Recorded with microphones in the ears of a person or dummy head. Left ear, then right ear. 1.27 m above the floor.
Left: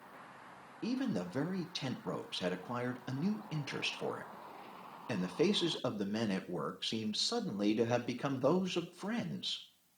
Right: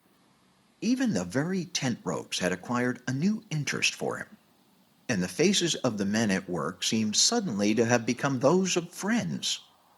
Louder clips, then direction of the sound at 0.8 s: Right 9 dB; 60° right (ahead or behind).